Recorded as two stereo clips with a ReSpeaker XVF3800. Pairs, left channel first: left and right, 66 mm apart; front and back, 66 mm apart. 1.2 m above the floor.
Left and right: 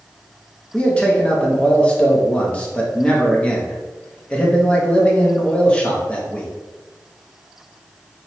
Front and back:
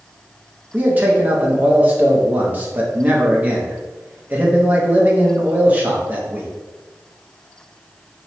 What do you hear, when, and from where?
0.7 s a man speaking: 145° left, 0.7 m